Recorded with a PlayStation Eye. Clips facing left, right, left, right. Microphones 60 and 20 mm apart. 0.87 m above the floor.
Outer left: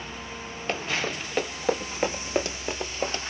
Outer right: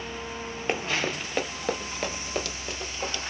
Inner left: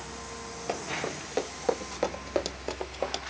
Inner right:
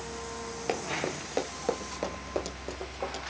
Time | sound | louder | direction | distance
0.7 | running footsteps | outer right 1 dB, inner right 1 dB | 20° right (ahead or behind) | 1.0 m